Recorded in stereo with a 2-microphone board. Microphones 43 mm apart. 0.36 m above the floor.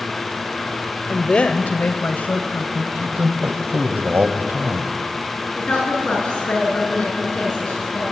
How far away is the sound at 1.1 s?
About 0.9 m.